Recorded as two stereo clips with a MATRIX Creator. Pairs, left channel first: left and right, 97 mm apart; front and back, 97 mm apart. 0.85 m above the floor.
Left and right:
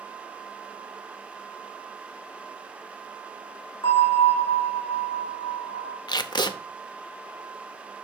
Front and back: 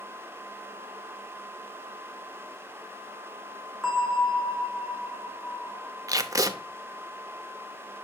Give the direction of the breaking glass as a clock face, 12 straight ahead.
No breaking glass in this recording.